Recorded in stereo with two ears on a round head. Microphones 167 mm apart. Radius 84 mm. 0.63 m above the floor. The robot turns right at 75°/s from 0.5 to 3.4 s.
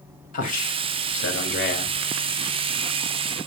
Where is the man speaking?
45° left, 3 m; by 2.0 s 155° left, 3 m.